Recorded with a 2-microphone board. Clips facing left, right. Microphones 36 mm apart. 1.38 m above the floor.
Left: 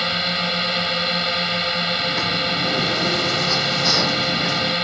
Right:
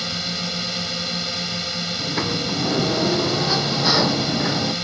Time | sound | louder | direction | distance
0.0 | a drone | left 6 dB | 35° left (ahead or behind) | ?
2.0 | a sliding door | left 3 dB | 15° right (ahead or behind) | ?